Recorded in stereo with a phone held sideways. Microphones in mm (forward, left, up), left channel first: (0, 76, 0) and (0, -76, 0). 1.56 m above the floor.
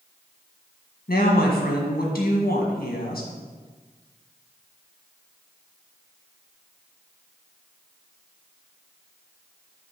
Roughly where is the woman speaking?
Left.